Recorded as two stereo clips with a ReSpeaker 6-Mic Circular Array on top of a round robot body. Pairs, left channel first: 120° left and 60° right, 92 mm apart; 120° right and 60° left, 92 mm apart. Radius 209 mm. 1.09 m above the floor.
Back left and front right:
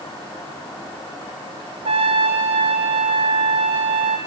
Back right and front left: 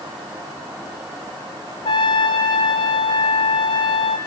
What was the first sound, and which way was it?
A trumpet, 85° right.